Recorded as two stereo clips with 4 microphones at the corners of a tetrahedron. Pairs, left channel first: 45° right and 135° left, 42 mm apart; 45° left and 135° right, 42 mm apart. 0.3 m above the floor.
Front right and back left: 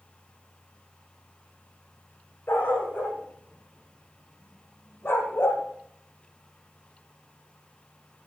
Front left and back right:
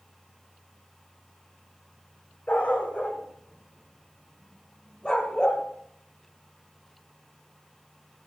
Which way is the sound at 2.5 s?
10° right.